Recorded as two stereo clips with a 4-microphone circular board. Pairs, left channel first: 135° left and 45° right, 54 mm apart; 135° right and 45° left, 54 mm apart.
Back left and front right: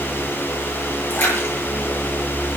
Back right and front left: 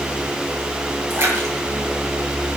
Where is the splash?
90° left, 8 m.